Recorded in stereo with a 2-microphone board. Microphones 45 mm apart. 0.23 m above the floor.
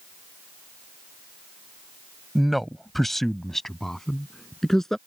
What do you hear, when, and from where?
2.4 s a man speaking: centre (ahead or behind); by 5.0 s 10° left (ahead or behind)